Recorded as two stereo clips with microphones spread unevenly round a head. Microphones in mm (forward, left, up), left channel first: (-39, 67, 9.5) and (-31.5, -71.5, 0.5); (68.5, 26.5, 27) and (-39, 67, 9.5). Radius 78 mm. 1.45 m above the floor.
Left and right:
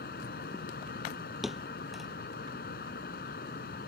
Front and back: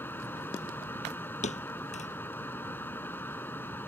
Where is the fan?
55° left.